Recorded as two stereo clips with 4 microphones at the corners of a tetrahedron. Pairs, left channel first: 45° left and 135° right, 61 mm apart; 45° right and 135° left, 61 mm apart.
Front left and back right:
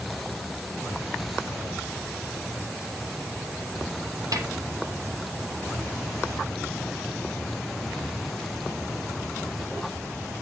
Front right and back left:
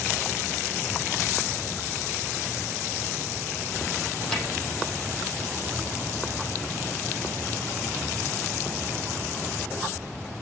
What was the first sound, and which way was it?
A snare drum, 125° right.